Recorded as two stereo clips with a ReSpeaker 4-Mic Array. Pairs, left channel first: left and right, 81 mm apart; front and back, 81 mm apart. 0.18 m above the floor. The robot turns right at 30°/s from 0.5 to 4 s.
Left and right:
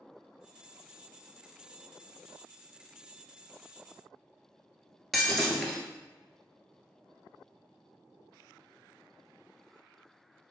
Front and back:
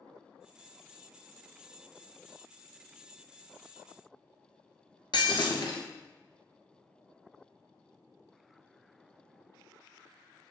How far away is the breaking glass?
About 1.0 m.